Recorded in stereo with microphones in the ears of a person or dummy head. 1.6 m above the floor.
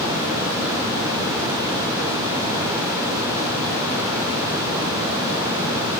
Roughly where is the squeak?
No squeak in this recording.